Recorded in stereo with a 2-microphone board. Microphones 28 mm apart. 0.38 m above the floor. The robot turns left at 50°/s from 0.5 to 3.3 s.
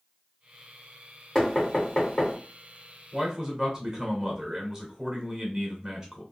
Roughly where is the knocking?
Centre.